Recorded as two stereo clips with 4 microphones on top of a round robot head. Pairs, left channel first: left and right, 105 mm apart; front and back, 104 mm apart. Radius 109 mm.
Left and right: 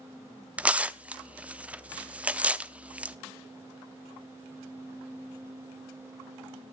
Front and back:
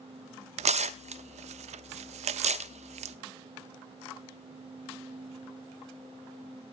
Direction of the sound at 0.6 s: 170° right.